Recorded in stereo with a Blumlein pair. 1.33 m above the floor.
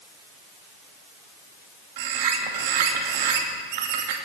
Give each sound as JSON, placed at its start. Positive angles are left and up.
{"t": 2.0, "sound": "a bird", "azimuth_deg": -50, "distance_m": 2.5}